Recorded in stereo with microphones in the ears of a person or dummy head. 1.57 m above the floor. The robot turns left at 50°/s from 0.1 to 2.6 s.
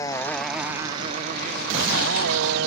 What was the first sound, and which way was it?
A motorcycle, 15° left (ahead or behind).